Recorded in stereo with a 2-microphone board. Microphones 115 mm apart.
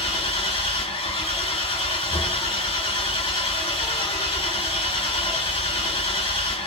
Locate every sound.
0.0 s an engine running: 55° left (ahead or behind), 1.6 m